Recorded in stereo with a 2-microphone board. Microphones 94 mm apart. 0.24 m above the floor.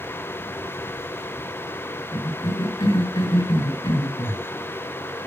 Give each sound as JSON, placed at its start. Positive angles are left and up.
{"t": 2.1, "sound": "a cough", "side_deg": 50, "distance_m": 3.5}